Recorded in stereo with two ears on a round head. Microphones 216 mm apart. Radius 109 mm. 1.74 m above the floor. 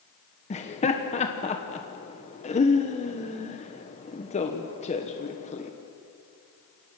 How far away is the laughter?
About 1.3 m.